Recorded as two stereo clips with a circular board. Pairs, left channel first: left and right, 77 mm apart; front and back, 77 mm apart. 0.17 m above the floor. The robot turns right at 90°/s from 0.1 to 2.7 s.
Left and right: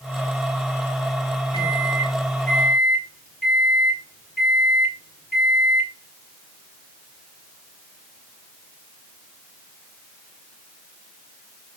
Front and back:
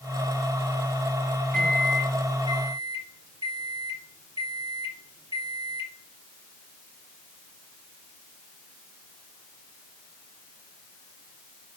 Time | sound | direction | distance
1.5 | a microwave | 90° left | 2 m